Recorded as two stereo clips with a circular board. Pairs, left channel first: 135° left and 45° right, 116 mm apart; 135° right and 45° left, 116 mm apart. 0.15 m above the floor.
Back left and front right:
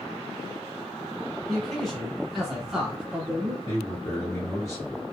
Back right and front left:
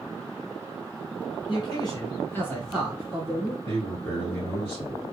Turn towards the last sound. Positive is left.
turn(degrees=170)